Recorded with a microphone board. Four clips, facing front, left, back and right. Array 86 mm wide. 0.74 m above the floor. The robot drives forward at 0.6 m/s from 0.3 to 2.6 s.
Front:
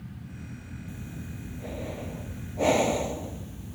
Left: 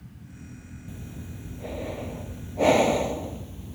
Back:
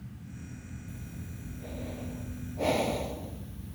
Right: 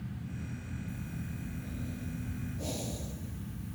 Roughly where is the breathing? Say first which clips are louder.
Left 3 dB, front 6 dB; left.